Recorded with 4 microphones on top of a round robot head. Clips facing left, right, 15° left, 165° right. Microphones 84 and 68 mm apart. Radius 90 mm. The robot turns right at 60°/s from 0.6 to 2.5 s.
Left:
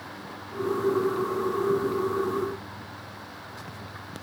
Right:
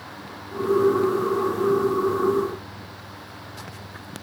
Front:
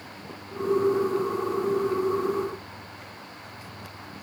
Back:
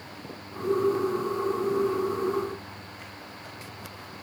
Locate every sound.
Only background noise.